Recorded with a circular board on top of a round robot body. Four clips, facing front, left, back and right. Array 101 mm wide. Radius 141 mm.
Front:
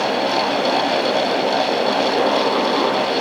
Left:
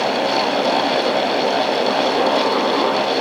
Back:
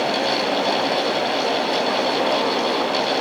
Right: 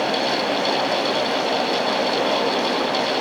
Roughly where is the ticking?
I don't hear ticking.